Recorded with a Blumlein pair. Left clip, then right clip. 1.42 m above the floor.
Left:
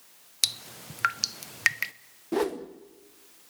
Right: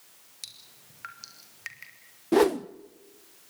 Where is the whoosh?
20° right, 0.7 m.